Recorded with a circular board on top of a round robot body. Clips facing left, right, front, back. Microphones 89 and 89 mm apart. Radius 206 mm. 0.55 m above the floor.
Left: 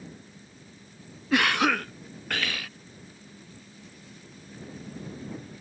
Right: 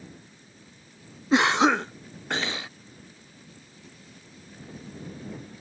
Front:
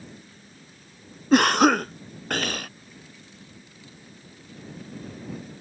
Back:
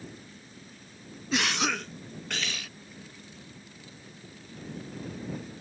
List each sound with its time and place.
1.3 s a cough: 30° right